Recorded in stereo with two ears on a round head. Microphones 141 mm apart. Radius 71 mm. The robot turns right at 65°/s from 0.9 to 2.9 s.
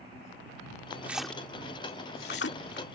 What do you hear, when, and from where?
1.0 s a splash: 10° right (ahead or behind); by 2.9 s 70° left (ahead or behind)